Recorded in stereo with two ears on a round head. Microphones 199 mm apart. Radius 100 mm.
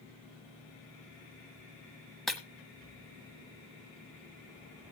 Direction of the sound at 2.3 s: Centre (ahead or behind).